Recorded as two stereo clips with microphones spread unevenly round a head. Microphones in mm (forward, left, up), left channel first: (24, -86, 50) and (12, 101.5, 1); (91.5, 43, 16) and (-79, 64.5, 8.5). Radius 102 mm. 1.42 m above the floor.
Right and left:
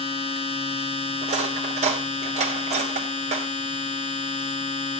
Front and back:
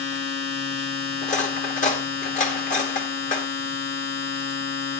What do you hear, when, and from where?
0.0 s a machine running: 40° right, 1.3 m
1.2 s cutlery clinking: 35° left, 1.6 m